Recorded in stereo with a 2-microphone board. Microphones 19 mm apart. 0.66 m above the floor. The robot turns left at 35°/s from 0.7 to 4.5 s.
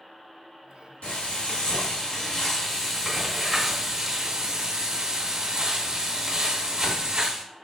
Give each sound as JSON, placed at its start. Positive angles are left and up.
{"t": 1.0, "sound": "frying", "azimuth_deg": 70, "distance_m": 1.4}